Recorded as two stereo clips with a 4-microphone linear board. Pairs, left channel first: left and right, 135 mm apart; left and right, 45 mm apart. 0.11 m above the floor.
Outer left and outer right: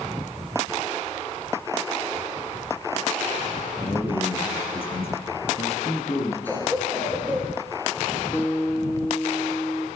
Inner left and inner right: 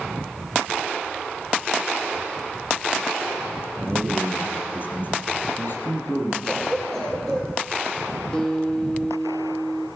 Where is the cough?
15° left (ahead or behind), 3 m.